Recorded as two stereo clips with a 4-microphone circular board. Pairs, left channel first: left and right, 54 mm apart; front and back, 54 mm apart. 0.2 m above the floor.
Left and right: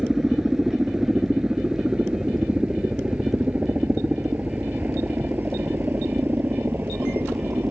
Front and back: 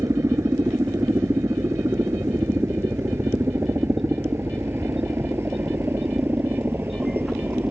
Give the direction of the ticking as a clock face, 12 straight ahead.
No ticking in this recording.